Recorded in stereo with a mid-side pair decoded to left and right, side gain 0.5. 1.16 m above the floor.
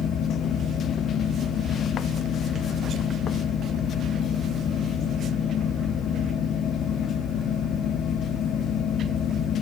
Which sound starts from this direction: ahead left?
A fan, at 0.0 s.